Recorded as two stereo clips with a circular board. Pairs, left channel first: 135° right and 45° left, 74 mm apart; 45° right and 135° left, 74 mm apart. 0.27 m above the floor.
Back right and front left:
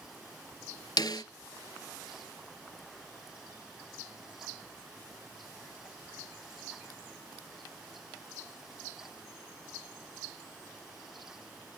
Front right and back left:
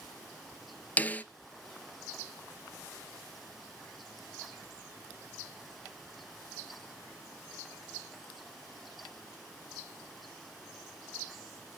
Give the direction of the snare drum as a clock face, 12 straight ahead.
4 o'clock.